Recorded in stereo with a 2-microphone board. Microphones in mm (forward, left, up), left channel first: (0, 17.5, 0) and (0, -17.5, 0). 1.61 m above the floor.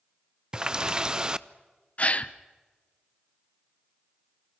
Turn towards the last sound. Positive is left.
turn(degrees=40)  # may be behind; listen again after turning